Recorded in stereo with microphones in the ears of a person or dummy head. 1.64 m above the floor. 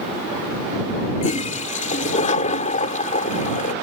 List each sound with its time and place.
1.2 s a toilet flushing: 40° left (ahead or behind)